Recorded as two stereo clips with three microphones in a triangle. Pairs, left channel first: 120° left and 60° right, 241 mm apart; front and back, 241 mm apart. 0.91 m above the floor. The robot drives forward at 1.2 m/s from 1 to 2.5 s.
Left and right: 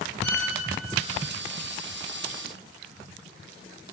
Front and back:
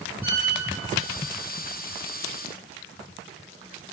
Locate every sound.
0.2 s a violin: 130° left, 2.5 m